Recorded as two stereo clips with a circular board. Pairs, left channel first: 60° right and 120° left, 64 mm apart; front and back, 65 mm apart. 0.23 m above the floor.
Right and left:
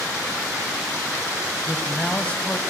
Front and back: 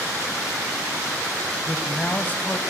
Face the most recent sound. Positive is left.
turn(degrees=-15)